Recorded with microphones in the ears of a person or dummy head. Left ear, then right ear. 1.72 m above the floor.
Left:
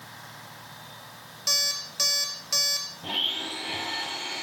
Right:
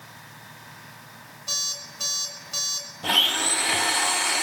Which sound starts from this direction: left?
An alarm clock, at 1.5 s.